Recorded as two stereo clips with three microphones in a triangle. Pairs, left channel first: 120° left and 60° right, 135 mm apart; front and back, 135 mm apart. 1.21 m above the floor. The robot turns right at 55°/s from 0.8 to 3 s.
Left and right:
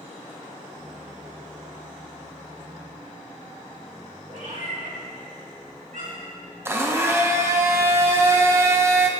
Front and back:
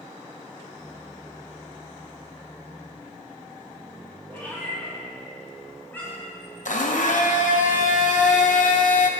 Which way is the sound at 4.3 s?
75° right.